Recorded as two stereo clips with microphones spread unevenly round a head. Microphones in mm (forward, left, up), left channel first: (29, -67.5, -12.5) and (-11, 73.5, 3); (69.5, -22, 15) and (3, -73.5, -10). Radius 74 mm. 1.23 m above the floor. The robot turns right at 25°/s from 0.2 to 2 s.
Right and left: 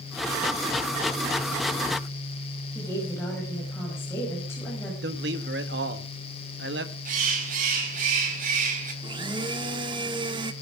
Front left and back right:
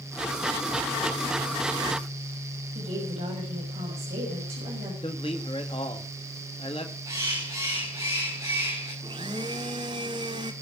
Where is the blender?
155° left, 1.2 m.